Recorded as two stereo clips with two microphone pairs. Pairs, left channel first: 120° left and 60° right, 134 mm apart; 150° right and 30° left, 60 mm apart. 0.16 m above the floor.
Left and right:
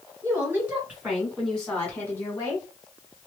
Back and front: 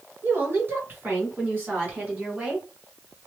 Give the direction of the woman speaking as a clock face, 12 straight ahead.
12 o'clock.